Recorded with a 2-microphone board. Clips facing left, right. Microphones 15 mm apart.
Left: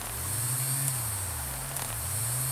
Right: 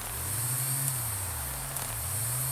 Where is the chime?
No chime in this recording.